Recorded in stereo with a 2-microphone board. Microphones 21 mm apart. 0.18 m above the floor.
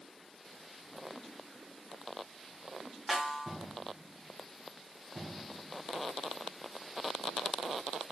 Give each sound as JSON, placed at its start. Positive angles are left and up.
{"t": 3.1, "sound": "a snare drum", "side_deg": -10, "distance_m": 1.3}